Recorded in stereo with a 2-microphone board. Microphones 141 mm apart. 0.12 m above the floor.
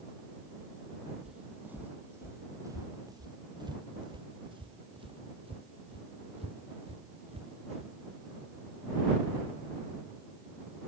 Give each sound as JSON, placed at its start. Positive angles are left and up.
{"t": 1.2, "sound": "footsteps", "side_deg": -5}